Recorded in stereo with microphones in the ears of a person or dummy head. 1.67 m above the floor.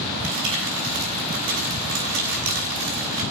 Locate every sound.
0.2 s crumpling: 70° right (ahead or behind), 6 m